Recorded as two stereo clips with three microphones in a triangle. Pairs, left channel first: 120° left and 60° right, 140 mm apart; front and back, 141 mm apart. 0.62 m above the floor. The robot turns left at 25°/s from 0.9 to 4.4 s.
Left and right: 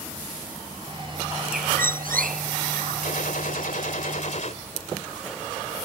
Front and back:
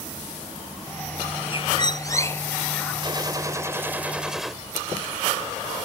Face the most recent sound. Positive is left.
turn(degrees=95)